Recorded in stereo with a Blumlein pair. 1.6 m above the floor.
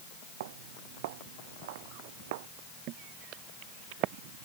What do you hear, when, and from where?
0.4 s footsteps: 50° right
2.9 s footsteps: 40° right